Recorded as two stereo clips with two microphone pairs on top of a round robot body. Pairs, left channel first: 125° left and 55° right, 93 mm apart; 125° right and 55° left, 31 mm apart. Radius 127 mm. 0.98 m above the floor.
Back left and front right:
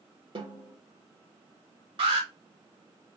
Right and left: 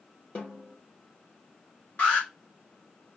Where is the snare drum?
90° right, 3.5 m.